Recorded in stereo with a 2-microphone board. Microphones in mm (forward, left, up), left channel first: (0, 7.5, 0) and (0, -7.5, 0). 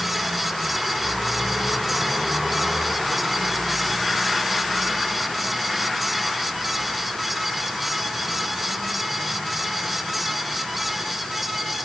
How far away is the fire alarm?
I don't hear a fire alarm.